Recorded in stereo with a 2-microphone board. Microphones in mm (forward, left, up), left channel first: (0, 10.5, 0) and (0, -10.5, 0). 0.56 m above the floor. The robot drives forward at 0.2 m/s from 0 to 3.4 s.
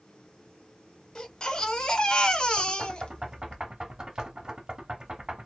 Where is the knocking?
40° right (ahead or behind), 1.2 m.